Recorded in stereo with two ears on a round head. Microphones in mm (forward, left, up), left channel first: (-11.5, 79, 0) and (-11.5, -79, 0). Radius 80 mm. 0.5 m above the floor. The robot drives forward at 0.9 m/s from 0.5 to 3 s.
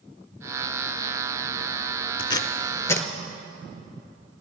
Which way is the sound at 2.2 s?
30° left (ahead or behind).